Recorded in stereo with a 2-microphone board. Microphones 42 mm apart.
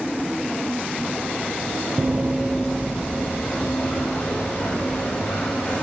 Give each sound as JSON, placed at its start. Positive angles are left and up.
{"t": 2.0, "sound": "running footsteps", "side_deg": -60, "distance_m": 0.6}